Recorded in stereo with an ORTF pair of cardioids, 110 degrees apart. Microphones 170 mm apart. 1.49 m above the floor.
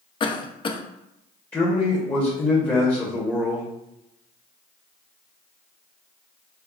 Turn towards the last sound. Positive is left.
turn(degrees=10)